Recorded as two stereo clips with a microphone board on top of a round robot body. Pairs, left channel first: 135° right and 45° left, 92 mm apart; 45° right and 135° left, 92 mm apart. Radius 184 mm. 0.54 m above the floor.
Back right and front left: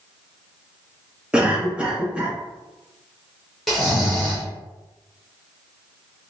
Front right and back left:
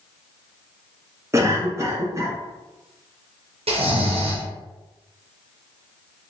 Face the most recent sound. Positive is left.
turn(degrees=135)